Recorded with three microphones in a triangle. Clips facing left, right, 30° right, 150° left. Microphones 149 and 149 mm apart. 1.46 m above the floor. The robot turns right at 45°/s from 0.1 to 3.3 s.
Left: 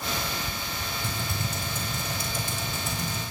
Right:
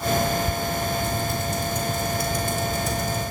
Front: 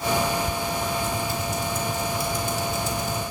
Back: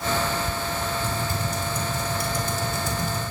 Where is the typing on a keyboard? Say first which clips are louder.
Right 7 dB, front 1 dB; 95° left, 5 m; by 3.3 s 160° right, 5 m.